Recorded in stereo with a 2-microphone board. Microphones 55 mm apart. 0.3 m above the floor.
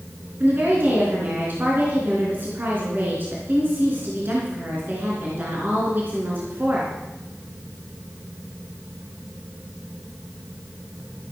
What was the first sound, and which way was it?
A woman speaking, 40° right (ahead or behind).